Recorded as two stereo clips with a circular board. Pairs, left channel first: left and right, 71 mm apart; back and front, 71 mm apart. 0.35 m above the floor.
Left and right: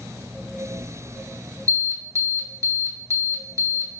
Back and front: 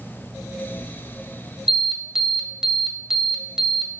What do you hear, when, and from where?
1.7 s an alarm: 80° right, 2.5 m